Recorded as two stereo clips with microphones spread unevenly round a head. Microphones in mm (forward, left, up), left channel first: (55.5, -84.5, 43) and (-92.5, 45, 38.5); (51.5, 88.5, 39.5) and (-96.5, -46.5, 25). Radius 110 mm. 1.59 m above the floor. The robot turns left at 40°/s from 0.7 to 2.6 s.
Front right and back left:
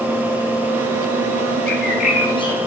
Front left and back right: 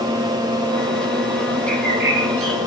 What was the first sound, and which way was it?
A bird, 75° right.